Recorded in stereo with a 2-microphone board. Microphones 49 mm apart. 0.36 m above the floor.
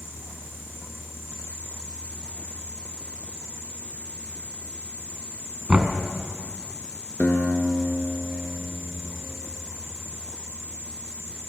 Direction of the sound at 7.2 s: 35° left (ahead or behind).